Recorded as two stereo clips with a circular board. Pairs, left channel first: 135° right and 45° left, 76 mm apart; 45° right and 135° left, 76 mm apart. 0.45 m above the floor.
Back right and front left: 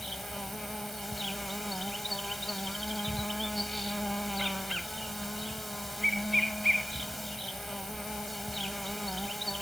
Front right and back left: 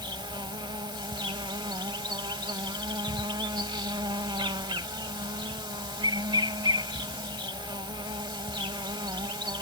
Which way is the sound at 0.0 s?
135° left.